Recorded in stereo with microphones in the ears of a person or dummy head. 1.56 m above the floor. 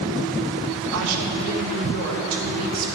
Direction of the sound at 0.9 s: 80° right.